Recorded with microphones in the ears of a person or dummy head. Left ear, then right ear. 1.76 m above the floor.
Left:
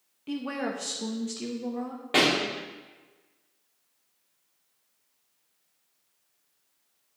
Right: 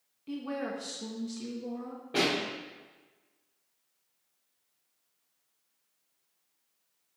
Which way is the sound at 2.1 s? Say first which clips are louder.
Left 6 dB; 30° left (ahead or behind).